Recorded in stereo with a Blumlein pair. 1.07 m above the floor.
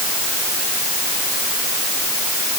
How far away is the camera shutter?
No camera shutter in this recording.